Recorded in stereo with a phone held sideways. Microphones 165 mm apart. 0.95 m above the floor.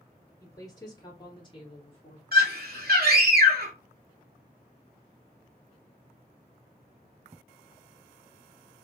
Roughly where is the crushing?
I don't hear crushing.